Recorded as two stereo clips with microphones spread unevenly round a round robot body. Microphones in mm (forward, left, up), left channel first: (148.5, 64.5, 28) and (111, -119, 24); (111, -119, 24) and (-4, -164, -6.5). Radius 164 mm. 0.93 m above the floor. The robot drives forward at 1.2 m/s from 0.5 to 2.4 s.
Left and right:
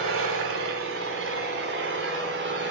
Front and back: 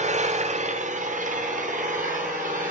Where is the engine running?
130° right, 2.5 m; by 2.7 s 155° right, 4 m.